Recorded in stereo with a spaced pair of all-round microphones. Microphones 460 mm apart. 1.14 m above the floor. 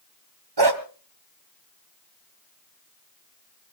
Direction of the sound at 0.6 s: 55° right (ahead or behind).